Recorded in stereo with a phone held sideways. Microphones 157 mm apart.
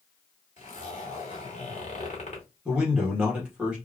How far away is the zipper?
About 2.5 m.